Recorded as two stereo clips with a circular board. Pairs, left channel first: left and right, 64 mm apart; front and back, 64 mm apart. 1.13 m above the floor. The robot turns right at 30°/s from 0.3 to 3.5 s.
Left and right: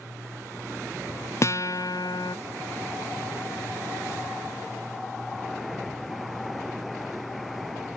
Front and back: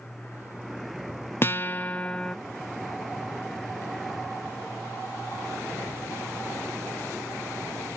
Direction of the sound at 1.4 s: 50° left.